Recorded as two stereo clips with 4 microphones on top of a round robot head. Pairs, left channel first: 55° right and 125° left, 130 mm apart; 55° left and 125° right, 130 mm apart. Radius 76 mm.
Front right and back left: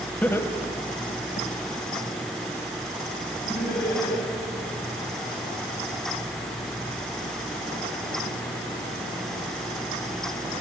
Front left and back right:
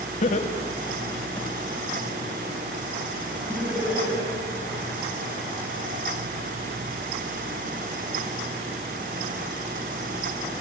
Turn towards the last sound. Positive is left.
turn(degrees=-55)